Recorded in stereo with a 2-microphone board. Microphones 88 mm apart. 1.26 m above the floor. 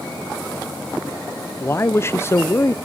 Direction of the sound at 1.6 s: 30° left (ahead or behind).